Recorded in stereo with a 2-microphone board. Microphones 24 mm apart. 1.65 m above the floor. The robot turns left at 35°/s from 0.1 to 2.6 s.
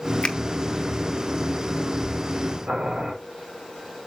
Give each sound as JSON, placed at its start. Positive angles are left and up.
{"t": 0.2, "sound": "a finger snap", "side_deg": 40, "distance_m": 0.9}
{"t": 2.7, "sound": "boiling", "side_deg": -65, "distance_m": 5.5}